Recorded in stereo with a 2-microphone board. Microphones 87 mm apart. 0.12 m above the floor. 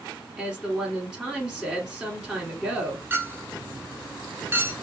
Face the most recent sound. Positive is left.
turn(degrees=-25)  # may be behind; listen again after turning